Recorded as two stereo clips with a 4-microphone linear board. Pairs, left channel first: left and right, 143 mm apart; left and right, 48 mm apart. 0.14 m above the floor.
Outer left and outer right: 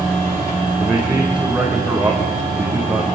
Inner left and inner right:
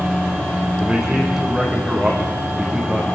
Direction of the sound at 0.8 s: 5° right (ahead or behind).